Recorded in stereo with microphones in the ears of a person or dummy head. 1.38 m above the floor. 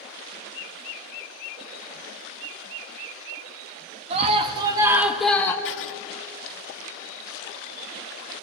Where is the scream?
35° right (ahead or behind), 1.9 m; by 5.5 s 15° left (ahead or behind), 1.3 m.